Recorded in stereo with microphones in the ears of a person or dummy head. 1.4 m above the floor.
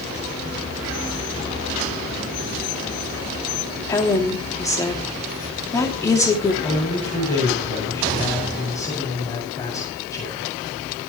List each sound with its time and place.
3.9 s a woman speaking: 15° left (ahead or behind), 3 m
6.6 s a man speaking: 20° left (ahead or behind), 8 m